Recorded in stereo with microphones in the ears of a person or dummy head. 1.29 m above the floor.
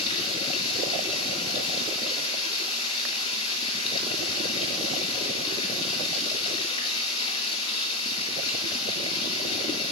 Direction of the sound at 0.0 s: 35° left (ahead or behind).